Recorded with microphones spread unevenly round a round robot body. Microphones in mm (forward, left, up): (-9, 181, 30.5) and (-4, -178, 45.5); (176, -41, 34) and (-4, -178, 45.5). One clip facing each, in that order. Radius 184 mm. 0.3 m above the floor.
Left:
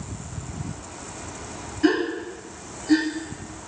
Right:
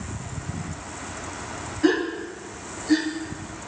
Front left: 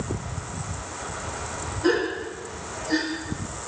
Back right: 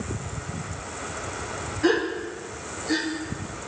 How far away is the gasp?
About 4 m.